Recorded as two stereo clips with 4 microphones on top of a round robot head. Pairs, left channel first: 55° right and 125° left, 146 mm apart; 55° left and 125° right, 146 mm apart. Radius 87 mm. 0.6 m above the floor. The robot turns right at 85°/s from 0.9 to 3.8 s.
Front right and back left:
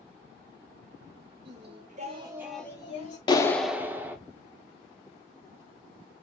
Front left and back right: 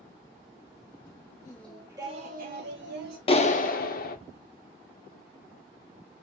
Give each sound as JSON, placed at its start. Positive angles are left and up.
{"t": 1.4, "sound": "singing", "azimuth_deg": 125, "distance_m": 0.8}
{"t": 3.3, "sound": "a clap", "azimuth_deg": 5, "distance_m": 0.7}